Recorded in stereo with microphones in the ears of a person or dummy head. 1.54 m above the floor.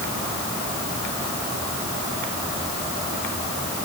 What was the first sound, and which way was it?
Only background noise.